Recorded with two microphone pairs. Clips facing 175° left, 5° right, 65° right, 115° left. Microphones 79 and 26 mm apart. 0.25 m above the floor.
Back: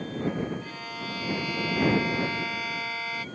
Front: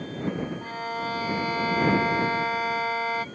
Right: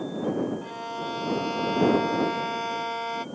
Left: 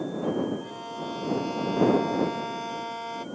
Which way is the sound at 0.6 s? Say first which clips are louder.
Front 6 dB, right 2 dB; 20° right.